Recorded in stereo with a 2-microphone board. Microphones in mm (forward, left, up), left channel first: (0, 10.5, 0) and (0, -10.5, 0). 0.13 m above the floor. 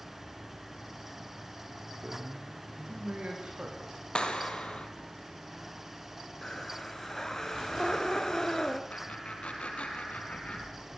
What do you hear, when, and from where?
2.0 s a man speaking: 65° right (ahead or behind), 8 m; by 3.9 s 60° right (ahead or behind), 10 m
4.2 s a clap: 45° left (ahead or behind), 2.5 m
6.4 s breathing: 25° left (ahead or behind), 1.9 m
8.9 s laughter: 70° left (ahead or behind), 4 m